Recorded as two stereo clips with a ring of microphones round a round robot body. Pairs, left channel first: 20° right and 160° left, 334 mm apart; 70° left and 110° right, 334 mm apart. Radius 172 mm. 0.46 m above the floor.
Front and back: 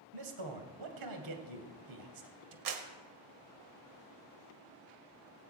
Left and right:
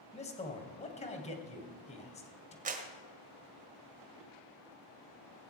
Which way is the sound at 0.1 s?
140° left.